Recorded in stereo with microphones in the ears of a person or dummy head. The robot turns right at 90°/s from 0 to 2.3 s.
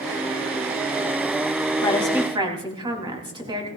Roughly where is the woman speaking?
Behind left.